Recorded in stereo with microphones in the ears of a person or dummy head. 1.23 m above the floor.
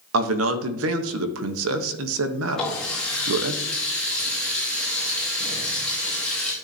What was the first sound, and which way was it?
A man speaking, 85° right.